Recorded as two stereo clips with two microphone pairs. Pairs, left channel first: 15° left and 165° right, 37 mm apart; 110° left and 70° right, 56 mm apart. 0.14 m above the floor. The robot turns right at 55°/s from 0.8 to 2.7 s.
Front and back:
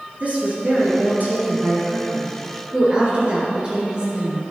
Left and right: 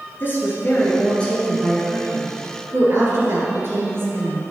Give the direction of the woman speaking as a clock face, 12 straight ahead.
7 o'clock.